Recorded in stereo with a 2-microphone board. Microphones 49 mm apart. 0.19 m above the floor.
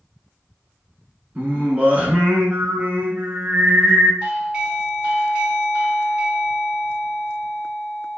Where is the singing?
30° right (ahead or behind), 1.1 m.